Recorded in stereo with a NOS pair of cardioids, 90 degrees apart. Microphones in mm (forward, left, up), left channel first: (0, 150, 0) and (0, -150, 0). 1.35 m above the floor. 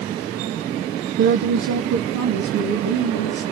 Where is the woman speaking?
40° right, 0.7 m; by 3.4 s 75° right, 2.5 m.